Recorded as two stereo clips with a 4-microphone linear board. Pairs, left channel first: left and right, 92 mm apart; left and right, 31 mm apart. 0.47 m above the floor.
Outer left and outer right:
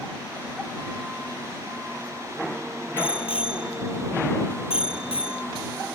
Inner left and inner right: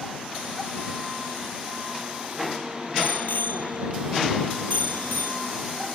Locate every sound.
3.0 s a bicycle bell: 75° left (ahead or behind); by 5.4 s 85° left